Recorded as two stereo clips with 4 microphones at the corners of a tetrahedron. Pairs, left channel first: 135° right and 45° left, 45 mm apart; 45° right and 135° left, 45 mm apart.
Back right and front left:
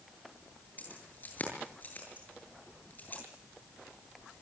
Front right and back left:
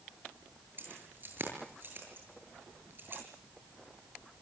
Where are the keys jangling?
175° left, 8 m.